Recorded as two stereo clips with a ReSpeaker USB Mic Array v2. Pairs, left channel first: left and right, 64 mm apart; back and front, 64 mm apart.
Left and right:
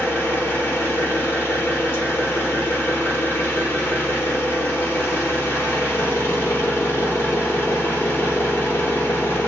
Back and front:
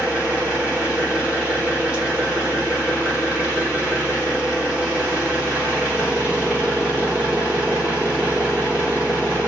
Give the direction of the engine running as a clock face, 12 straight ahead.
10 o'clock.